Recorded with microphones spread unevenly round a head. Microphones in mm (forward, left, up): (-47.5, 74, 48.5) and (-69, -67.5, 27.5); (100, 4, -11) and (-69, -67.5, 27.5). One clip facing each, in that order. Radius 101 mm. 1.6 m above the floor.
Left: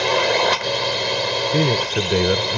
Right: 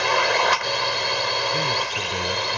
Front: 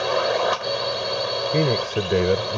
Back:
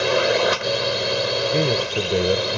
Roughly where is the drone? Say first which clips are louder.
Left 3 dB, back 3 dB; behind left.